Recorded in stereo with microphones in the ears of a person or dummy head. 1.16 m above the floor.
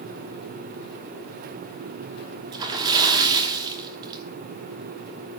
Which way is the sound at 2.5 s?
25° right (ahead or behind).